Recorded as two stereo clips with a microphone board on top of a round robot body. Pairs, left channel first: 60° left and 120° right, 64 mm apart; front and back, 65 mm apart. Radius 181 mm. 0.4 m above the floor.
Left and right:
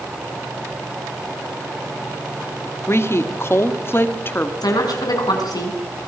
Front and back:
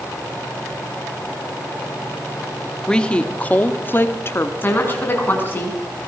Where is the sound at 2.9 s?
70° left, 1.7 m; by 4.5 s 20° left, 1.8 m.